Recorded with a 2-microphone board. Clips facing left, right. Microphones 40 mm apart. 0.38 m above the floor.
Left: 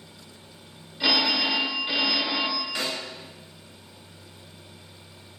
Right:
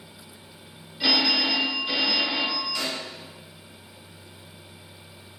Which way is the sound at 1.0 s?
10° left (ahead or behind).